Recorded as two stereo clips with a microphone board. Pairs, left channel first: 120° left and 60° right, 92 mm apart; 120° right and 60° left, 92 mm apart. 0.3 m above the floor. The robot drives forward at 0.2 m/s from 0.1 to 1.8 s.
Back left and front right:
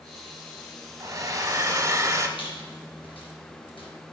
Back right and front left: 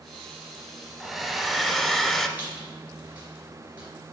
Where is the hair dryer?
30° right, 0.8 m; by 2.3 s 40° right, 0.7 m.